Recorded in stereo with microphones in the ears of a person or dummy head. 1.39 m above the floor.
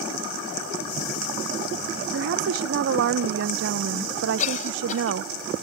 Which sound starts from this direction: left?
A cough, at 4.4 s.